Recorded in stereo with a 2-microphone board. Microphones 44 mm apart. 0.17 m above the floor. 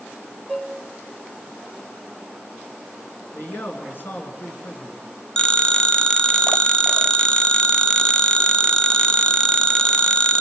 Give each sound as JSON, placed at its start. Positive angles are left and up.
{"t": 0.5, "sound": "dishes clattering", "side_deg": 20, "distance_m": 1.3}
{"t": 3.3, "sound": "a man speaking", "side_deg": 50, "distance_m": 2.5}
{"t": 5.4, "sound": "a phone ringing", "side_deg": 20, "distance_m": 0.9}